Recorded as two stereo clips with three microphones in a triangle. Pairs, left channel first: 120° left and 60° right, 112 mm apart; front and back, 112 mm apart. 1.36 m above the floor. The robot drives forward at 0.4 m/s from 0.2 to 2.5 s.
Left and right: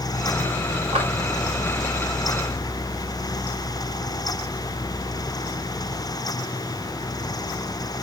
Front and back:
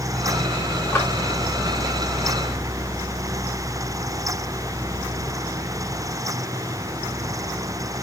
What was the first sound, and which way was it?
A clap, 75° right.